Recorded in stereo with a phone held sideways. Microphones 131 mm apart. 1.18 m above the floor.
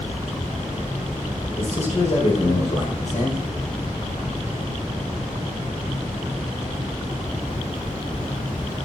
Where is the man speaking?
55° left (ahead or behind), 5 m.